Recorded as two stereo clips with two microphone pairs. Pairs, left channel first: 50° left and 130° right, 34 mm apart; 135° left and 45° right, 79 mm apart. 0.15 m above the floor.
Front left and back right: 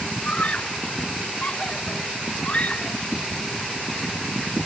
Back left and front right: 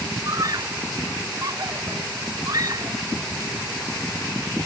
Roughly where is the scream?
Ahead.